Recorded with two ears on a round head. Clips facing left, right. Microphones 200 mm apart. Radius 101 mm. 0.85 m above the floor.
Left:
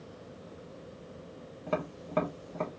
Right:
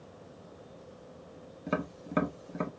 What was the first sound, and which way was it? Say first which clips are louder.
Tapping: even; 20° right (ahead or behind).